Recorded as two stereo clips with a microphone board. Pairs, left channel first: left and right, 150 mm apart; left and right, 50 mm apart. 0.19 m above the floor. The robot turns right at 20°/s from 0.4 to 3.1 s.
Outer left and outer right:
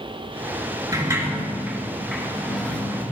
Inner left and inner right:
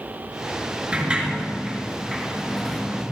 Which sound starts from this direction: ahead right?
A sliding door, at 0.9 s.